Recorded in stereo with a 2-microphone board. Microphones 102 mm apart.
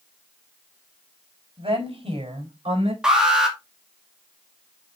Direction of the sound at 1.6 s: 65° right (ahead or behind).